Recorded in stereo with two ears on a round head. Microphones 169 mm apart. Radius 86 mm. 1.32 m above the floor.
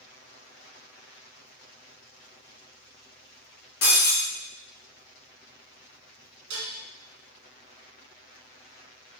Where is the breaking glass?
55° left (ahead or behind), 2 m.